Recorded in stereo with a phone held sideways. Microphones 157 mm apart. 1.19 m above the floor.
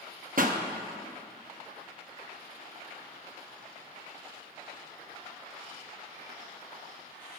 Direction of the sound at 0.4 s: 60° right (ahead or behind).